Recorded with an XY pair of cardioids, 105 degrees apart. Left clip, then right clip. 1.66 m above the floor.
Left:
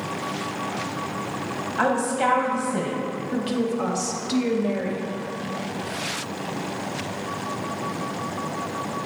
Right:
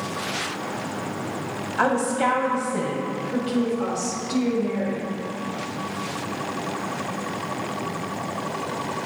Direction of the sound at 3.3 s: 55° left.